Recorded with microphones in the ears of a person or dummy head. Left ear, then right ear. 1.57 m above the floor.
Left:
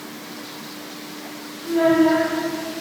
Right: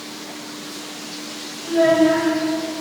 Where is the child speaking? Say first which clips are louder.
Right 2 dB; 20° right (ahead or behind), 2 m.